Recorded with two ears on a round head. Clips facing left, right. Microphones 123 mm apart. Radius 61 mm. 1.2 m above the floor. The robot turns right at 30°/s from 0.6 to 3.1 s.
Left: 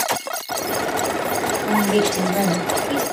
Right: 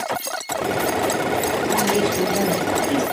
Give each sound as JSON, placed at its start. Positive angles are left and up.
{"t": 1.6, "sound": "a woman speaking", "azimuth_deg": 130, "distance_m": 3.5}